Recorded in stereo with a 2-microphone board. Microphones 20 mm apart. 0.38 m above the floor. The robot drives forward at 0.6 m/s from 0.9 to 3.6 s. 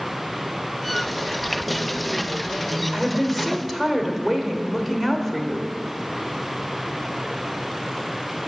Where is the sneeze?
I don't hear a sneeze.